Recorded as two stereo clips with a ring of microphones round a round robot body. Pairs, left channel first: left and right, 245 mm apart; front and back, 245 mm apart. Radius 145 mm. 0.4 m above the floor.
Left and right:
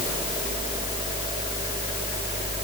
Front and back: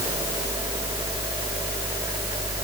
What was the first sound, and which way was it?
Only background noise.